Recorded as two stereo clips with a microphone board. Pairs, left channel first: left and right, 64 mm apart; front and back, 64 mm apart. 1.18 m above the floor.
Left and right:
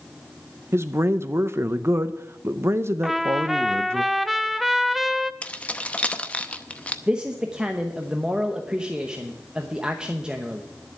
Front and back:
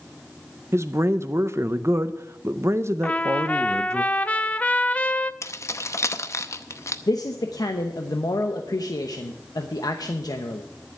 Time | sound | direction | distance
0.7 | a man speaking | 135° right | 0.5 m
3.0 | a trumpet | 5° right | 0.5 m
5.4 | keys jangling | 25° left | 0.7 m
7.1 | a man speaking | 15° right | 0.9 m